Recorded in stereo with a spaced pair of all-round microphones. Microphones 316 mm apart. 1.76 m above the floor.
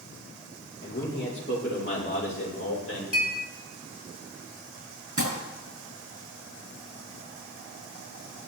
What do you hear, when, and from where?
0.8 s a man speaking: 35° left (ahead or behind), 5 m; by 3.0 s 45° left (ahead or behind), 6 m
3.1 s a clink: 55° right (ahead or behind), 4 m
5.2 s crumpling: 75° right (ahead or behind), 6.5 m